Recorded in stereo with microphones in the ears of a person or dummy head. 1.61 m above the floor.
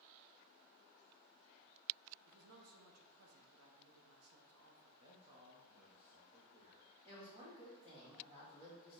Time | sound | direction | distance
2.2 | a woman speaking | 85° right | 1.3 m
5.0 | a man speaking | 25° right (ahead or behind) | 1.1 m
7.0 | a woman speaking | 25° right (ahead or behind) | 2 m